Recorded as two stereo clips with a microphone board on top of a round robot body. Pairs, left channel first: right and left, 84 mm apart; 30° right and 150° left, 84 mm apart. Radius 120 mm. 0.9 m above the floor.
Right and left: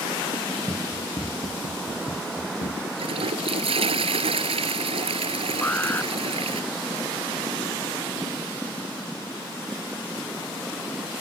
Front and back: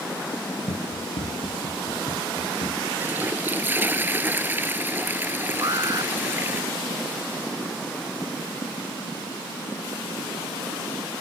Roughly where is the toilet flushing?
Left.